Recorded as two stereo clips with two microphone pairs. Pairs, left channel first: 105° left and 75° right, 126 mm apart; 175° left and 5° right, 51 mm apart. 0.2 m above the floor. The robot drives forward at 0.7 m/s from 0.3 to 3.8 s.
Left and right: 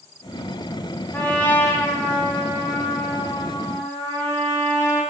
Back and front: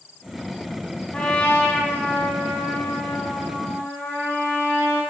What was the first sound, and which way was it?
A trumpet, 155° left.